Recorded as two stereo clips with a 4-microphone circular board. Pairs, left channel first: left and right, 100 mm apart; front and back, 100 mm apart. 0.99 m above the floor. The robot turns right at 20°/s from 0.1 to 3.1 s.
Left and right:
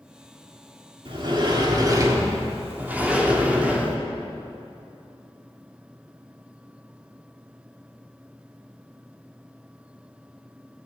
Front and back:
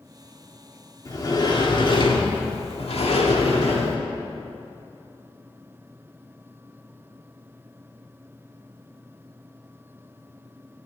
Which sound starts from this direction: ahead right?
A sliding door, at 1.1 s.